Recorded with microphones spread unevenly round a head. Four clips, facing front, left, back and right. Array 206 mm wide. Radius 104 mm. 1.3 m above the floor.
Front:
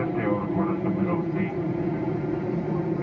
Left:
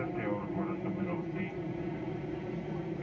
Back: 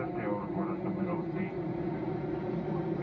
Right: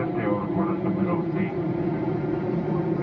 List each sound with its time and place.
0.0 s an aircraft: 55° right; by 3.0 s 70° right